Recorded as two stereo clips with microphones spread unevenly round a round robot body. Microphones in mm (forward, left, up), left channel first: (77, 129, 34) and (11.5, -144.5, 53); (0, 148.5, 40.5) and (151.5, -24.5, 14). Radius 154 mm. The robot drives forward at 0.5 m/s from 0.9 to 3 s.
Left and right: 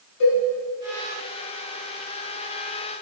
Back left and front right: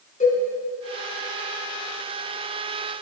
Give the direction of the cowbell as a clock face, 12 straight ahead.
9 o'clock.